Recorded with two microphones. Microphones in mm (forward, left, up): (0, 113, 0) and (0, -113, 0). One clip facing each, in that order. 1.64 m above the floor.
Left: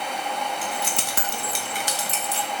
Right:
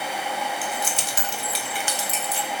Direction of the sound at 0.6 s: 65° left (ahead or behind).